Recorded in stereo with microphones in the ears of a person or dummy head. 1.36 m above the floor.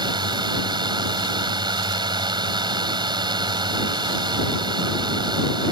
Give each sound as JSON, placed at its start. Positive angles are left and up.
{"t": 0.0, "sound": "a drone", "side_deg": -35}